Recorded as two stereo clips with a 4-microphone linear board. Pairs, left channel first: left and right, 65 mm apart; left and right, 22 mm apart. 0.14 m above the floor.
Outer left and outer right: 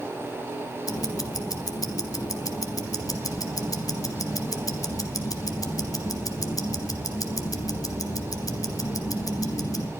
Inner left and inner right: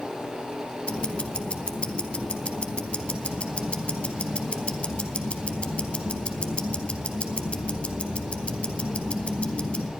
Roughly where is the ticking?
Left.